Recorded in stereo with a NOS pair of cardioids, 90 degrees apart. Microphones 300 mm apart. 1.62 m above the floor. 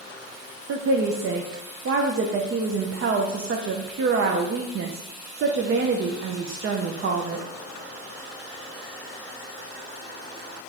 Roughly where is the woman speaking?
Ahead right.